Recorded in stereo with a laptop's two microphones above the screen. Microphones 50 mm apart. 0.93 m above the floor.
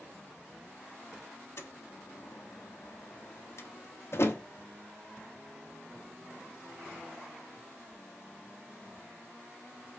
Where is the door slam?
55° left (ahead or behind), 0.9 m.